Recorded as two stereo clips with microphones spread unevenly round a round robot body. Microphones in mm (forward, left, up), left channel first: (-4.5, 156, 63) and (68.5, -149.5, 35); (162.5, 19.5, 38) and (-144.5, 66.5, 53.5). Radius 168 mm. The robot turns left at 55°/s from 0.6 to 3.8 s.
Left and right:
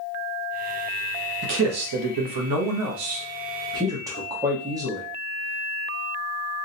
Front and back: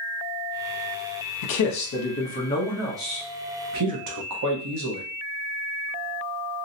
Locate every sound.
1.4 s a man speaking: 25° right, 0.8 m; by 5.0 s 155° right, 0.8 m